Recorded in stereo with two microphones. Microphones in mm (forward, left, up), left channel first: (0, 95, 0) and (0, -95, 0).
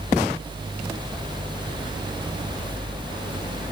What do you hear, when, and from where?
Only background noise.